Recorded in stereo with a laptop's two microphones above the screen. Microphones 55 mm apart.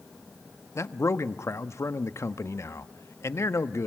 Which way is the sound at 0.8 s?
55° left (ahead or behind).